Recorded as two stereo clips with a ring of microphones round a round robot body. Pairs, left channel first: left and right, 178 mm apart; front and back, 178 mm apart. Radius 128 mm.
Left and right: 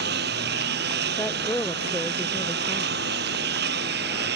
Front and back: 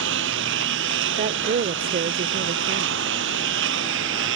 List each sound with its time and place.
0.0 s a lawn mower: 140° right
1.2 s a woman speaking: 170° left